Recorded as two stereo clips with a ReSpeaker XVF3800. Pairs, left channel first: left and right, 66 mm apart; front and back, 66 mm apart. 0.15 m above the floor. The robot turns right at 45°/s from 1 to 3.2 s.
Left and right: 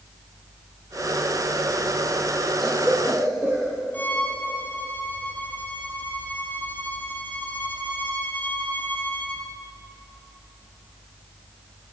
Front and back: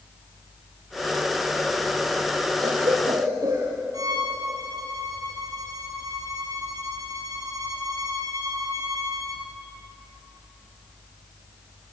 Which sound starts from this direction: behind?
A cough, at 2.6 s.